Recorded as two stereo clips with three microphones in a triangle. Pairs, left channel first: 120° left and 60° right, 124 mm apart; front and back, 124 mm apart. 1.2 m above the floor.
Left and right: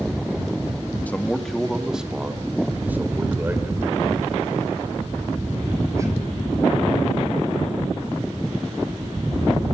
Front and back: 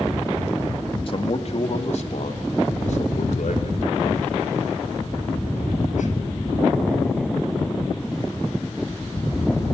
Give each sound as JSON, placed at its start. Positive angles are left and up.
{"t": 1.1, "sound": "a man speaking", "azimuth_deg": 45, "distance_m": 1.8}